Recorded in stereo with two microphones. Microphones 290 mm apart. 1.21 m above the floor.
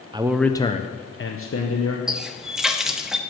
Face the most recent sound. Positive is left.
turn(degrees=0)  # may be behind; listen again after turning